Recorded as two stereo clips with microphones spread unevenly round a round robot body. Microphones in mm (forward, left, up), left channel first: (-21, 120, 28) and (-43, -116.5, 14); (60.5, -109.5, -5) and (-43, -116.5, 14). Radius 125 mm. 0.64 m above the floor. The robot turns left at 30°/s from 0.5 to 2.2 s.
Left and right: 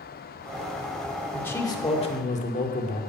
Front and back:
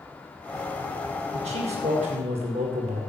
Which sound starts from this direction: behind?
A man speaking, at 1.3 s.